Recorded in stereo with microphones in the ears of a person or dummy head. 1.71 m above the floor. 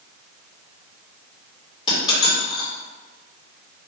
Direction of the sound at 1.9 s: 35° left (ahead or behind).